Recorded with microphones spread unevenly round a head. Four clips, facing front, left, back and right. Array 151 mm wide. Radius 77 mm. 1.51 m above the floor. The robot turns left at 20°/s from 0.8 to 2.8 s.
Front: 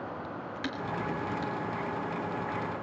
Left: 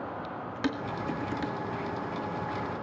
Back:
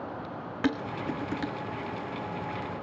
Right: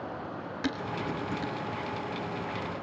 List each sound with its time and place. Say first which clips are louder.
0.6 s dishes clattering: left 1 dB, back 5 dB; 170° left, 1.8 m; by 1.5 s 155° left, 1.8 m